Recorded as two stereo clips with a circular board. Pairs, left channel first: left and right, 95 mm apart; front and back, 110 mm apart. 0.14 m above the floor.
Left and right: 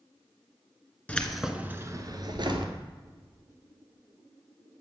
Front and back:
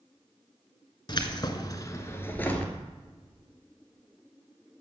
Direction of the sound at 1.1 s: 20° left.